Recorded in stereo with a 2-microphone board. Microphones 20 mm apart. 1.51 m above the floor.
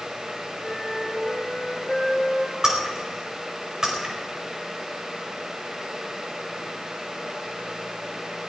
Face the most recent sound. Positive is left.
turn(degrees=-35)  # may be behind; listen again after turning